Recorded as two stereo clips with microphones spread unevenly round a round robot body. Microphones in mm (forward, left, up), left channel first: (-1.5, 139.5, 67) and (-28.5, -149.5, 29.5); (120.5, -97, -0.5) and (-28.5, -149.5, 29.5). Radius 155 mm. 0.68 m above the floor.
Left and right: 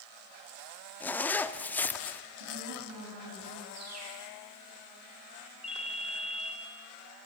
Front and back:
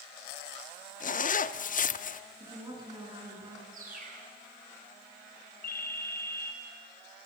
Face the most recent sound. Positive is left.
turn(degrees=-5)